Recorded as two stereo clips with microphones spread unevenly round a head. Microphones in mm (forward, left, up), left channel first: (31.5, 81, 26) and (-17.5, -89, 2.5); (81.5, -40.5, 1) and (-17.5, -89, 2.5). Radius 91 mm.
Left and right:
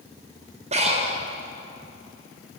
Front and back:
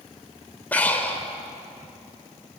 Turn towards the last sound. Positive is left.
turn(degrees=-50)